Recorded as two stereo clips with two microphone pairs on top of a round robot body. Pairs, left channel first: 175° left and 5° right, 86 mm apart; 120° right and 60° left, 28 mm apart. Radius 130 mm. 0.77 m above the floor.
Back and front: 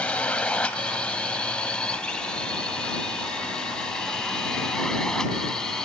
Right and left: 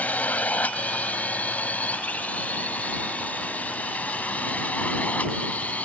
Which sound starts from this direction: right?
A drone, at 0.0 s.